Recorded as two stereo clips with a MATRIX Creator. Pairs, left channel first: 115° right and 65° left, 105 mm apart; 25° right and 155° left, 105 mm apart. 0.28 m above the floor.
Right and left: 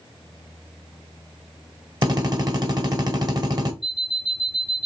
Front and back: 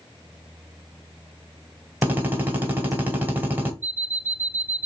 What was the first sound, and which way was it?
A drill, 90° left.